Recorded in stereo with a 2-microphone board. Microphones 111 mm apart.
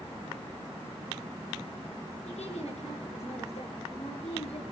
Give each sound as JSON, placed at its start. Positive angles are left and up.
{"t": 2.2, "sound": "a woman speaking", "side_deg": 70, "distance_m": 9.5}